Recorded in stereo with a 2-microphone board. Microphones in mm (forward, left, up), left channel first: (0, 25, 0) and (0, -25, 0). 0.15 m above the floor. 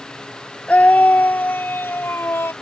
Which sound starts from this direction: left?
A scream, at 0.7 s.